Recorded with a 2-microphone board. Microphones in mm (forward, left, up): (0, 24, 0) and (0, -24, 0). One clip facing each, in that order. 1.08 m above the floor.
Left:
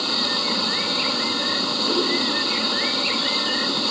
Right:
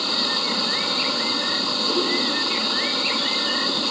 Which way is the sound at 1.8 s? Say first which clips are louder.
Left 1 dB; 30° left (ahead or behind).